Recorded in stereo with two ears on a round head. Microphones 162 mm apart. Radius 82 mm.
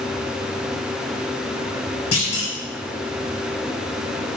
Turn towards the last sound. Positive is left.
turn(degrees=60)  # may be behind; listen again after turning